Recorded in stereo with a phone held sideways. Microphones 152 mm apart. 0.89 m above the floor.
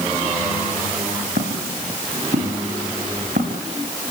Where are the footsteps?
75° right (ahead or behind), 6.5 m; by 3.6 s 60° right (ahead or behind), 6 m.